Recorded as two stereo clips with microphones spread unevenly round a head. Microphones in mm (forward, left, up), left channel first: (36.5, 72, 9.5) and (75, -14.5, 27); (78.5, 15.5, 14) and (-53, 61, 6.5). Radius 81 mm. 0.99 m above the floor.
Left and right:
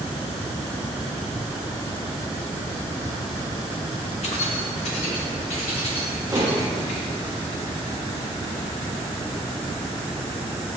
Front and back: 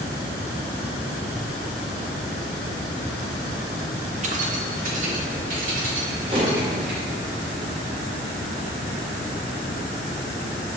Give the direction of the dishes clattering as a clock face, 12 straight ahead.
5 o'clock.